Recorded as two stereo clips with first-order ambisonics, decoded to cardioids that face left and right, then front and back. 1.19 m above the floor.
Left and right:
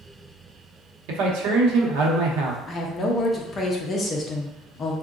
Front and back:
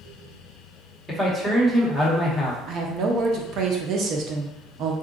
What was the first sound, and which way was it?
A man speaking, 95° right.